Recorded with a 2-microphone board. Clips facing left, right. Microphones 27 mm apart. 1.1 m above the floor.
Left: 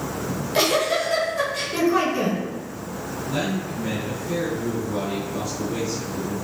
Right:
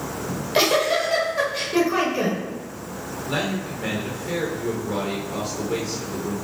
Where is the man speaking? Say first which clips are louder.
Right 1 dB; 80° right, 3 m.